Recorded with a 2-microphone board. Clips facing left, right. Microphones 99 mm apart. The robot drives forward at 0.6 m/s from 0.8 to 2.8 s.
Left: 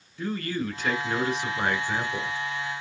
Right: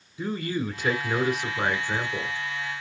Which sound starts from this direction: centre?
A man speaking, at 0.2 s.